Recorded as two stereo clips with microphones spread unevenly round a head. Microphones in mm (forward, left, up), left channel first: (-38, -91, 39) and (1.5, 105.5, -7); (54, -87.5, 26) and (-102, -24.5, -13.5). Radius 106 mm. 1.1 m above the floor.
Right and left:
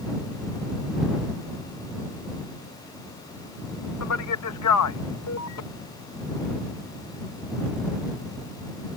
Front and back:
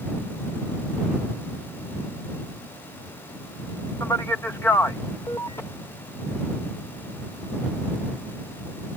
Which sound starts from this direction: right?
A man speaking, at 4.0 s.